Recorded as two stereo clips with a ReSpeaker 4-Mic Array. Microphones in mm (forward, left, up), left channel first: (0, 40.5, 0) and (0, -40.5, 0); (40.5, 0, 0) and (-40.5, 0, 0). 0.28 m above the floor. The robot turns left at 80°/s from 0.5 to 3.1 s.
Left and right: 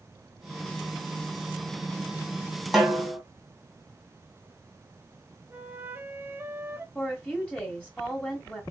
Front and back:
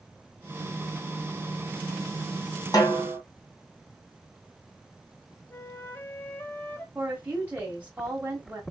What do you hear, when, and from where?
2.7 s a snare drum: straight ahead, 1.9 m; by 3.2 s 30° right, 1.9 m
5.5 s a flute: 45° right, 0.9 m
7.0 s a woman speaking: 135° left, 1.4 m